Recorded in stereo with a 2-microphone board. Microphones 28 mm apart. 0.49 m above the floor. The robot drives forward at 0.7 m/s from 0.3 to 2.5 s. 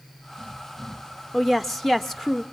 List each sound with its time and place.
1.3 s a woman speaking: 10° left (ahead or behind), 0.8 m